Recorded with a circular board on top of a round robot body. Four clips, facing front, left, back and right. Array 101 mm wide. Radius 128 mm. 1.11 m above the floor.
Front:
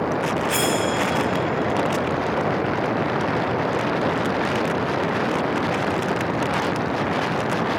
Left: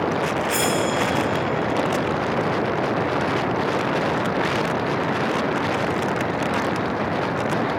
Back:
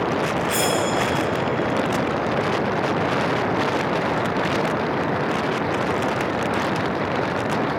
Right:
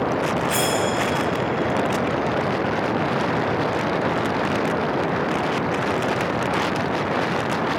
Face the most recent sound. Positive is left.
turn(degrees=25)